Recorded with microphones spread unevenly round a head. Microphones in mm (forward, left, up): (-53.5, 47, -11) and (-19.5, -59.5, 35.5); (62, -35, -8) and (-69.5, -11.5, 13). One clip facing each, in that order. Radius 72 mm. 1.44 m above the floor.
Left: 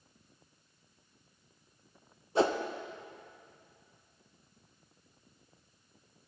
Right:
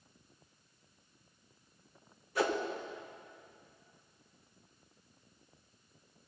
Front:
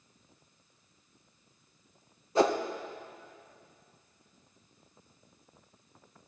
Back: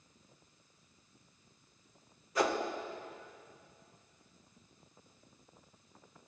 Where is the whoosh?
50° left, 0.5 m.